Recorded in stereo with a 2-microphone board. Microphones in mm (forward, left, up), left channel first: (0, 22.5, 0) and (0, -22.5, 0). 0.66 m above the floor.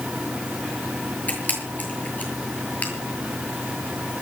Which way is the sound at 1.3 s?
35° left (ahead or behind).